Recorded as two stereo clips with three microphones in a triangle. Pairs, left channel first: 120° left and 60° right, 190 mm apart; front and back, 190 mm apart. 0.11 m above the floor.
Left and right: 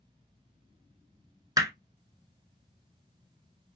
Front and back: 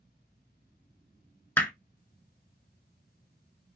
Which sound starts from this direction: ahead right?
Hammering, at 1.6 s.